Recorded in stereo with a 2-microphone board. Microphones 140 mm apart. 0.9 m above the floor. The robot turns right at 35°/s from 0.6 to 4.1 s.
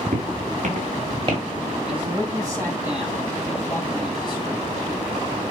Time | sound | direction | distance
0.1 | footsteps | 60° right (ahead or behind) | 6.5 m
1.9 | a man speaking | 45° right | 8 m